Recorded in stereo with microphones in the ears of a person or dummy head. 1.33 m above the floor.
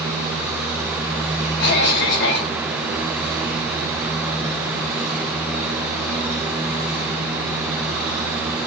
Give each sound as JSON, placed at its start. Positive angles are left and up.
{"t": 1.6, "sound": "a cough", "side_deg": 65, "distance_m": 6.5}